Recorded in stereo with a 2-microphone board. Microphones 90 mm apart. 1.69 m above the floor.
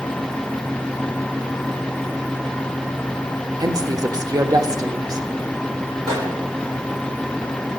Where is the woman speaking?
45° right (ahead or behind), 0.8 m.